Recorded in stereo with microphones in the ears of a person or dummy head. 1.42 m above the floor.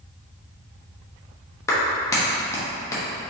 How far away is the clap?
About 1.1 m.